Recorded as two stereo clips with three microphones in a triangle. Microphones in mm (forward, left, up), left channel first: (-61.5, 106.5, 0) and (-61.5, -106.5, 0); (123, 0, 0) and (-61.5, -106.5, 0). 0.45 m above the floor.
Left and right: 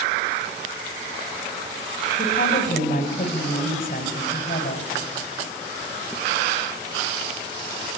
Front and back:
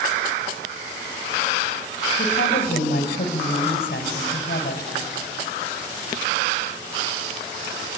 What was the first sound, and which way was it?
A woman speaking, 60° left.